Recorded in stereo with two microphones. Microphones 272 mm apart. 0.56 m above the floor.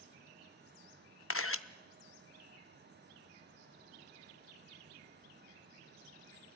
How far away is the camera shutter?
About 0.6 m.